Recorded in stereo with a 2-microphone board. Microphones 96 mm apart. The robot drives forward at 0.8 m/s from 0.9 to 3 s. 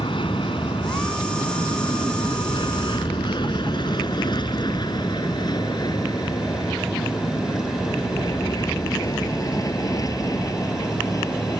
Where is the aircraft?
60° left (ahead or behind); by 11.6 s 35° left (ahead or behind).